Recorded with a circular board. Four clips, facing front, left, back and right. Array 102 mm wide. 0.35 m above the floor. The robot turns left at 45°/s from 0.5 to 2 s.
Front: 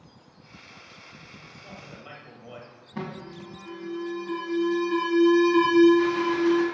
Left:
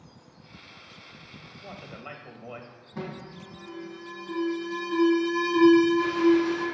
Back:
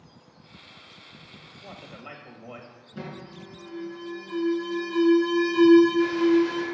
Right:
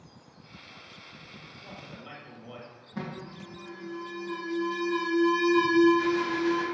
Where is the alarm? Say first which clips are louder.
Left 1 dB, front 3 dB; straight ahead, 3 m.